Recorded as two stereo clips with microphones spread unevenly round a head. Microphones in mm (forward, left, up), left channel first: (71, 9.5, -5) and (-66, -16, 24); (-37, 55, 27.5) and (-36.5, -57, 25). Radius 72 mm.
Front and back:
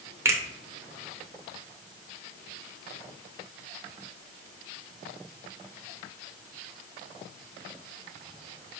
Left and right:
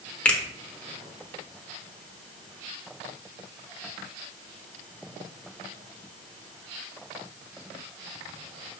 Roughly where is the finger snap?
Behind left.